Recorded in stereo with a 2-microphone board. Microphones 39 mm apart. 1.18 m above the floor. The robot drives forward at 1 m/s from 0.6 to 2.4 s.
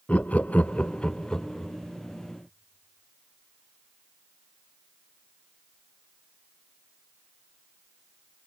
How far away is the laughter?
About 0.7 m.